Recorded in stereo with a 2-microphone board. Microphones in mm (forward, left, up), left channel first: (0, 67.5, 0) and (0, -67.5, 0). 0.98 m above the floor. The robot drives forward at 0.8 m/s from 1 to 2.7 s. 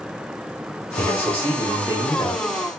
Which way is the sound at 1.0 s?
15° left (ahead or behind).